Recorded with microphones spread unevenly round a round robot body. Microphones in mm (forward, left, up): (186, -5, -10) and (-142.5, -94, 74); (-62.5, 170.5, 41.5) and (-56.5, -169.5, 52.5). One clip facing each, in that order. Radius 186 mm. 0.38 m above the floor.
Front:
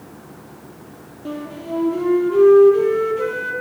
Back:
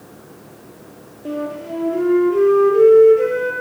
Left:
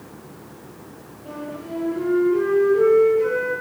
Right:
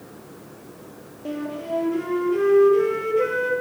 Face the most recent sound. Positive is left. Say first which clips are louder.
# back 3 dB, right 4 dB
turn(degrees=-55)